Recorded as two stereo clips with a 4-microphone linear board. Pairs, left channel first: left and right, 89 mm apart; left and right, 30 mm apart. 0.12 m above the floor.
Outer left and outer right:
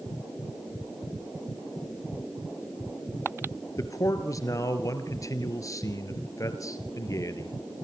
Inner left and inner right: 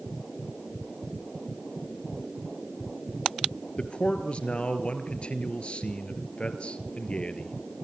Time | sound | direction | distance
3.8 | a man speaking | 40° left (ahead or behind) | 2 m